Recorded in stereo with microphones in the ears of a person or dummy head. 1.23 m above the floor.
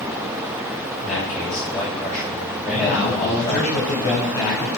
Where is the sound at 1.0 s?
10° left (ahead or behind), 6.5 m.